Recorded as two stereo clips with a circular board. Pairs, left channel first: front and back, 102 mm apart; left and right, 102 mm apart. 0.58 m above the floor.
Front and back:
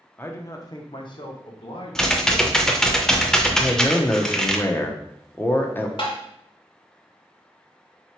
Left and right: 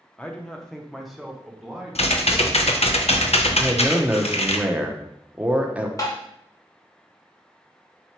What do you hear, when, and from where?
0.2 s a man speaking: 30° left, 0.6 m; by 2.8 s 10° right, 1.7 m
1.9 s typing on a keyboard: 85° left, 0.6 m
3.6 s a man speaking: 30° right, 0.6 m
6.0 s tapping: 35° left, 1.2 m